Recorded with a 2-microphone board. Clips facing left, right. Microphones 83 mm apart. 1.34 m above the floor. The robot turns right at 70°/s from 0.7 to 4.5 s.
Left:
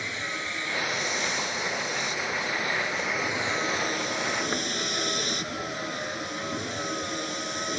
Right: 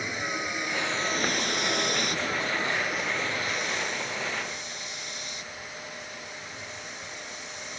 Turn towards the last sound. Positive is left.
turn(degrees=100)